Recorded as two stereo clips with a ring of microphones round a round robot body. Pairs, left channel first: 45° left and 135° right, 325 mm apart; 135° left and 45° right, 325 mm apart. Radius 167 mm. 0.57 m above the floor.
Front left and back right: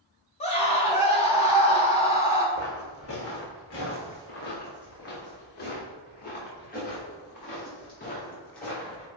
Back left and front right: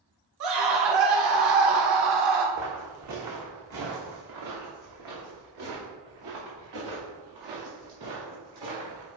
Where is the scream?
25° right, 3.5 m.